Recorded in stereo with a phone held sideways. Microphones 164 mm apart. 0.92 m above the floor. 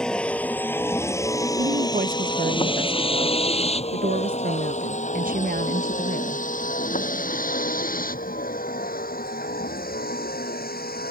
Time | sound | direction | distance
0.0 | a vehicle | 5° left (ahead or behind) | ?
1.6 | a woman speaking | 55° right (ahead or behind) | ?